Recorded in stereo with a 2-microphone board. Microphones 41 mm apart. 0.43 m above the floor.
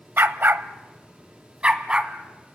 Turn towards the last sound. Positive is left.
turn(degrees=-25)  # may be behind; listen again after turning